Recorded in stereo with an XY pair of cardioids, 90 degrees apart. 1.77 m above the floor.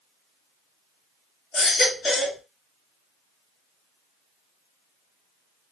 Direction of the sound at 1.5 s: 50° left.